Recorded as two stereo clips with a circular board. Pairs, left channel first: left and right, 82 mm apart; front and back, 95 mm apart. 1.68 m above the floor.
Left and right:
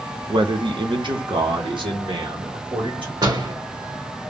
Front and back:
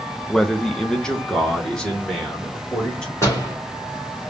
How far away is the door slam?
About 2.5 m.